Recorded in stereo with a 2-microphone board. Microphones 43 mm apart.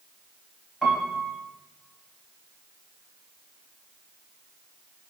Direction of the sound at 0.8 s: 10° left (ahead or behind).